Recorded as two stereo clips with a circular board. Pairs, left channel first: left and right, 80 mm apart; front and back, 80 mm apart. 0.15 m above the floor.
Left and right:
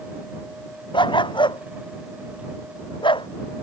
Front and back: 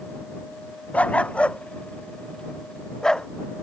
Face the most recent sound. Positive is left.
turn(degrees=80)